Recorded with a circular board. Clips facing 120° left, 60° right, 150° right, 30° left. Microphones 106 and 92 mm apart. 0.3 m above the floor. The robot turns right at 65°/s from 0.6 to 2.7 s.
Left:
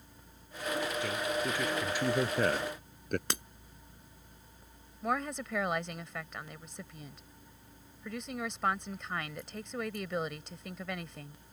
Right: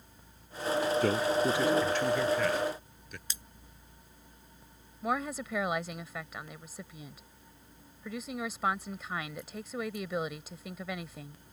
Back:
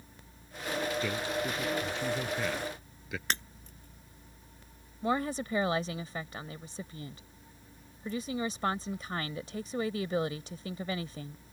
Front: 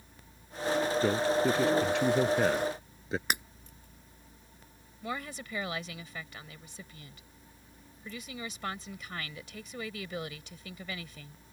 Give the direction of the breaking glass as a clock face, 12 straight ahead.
8 o'clock.